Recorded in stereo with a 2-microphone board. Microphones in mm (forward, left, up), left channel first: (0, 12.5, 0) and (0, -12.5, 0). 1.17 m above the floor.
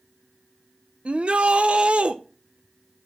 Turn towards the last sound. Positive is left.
turn(degrees=-55)  # may be behind; listen again after turning